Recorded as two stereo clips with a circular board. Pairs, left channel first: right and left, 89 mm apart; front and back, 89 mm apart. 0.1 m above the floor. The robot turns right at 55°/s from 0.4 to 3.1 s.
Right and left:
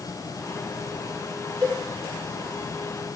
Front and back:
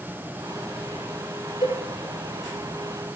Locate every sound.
1.6 s a cowbell: 30° left, 10 m; by 1.8 s 40° left, 10 m